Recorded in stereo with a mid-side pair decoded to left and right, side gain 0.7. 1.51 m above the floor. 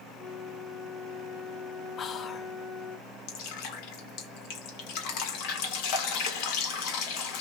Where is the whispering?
35° left, 0.6 m.